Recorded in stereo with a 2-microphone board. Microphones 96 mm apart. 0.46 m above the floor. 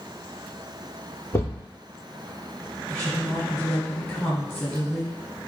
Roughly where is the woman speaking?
Left.